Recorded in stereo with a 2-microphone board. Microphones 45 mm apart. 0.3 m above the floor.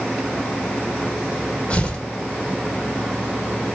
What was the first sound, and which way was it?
Tearing paper, 30° left (ahead or behind).